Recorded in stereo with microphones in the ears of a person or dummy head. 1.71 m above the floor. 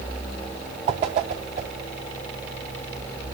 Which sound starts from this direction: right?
A whoosh, at 0.9 s.